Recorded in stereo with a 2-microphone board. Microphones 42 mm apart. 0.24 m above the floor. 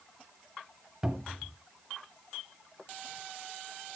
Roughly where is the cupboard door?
Right.